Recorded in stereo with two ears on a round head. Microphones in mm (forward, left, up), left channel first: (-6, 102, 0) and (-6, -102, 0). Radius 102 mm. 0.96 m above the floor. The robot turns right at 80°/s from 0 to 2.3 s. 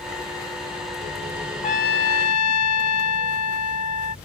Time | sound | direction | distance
1.6 | a trumpet | 25° left | ?